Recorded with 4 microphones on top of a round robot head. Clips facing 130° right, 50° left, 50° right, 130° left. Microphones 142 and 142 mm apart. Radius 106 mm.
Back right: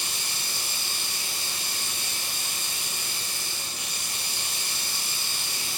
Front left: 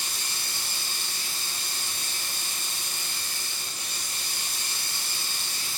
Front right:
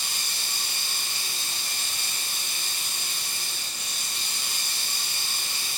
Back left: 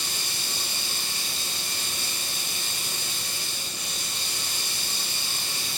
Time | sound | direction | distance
0.0 | running water | 100° right | 2.5 m